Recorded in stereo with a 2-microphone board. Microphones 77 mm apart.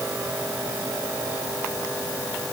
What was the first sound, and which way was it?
Only background noise.